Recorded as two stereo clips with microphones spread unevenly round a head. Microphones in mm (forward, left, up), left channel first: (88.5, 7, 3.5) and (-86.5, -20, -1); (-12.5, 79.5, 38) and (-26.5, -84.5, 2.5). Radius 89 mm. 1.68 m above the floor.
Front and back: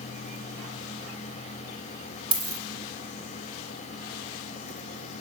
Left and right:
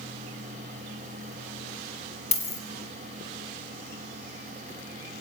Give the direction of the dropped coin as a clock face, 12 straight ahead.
8 o'clock.